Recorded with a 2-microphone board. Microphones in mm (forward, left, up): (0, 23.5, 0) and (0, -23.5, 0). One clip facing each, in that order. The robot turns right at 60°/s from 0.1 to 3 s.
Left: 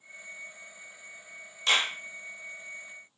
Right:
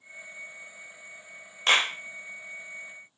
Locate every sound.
1.7 s a clap: 40° right (ahead or behind), 0.8 m